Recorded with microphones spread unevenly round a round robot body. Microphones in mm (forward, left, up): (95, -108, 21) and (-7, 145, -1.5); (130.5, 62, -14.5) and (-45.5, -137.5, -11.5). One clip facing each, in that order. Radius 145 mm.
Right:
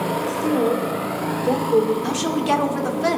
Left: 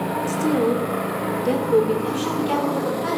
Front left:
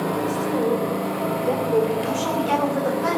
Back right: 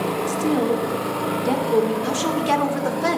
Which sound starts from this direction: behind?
A woman speaking, at 0.3 s.